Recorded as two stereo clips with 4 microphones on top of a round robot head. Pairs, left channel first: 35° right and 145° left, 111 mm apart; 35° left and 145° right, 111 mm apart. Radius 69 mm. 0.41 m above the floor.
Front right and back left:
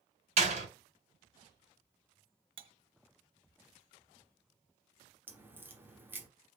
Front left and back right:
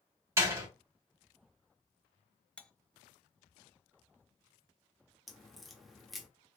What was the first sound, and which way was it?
A door slam, 155° left.